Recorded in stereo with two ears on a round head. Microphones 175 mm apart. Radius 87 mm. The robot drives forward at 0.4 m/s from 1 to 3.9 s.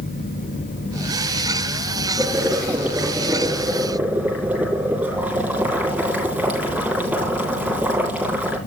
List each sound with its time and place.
2.2 s boiling: 5° right (ahead or behind), 4.5 m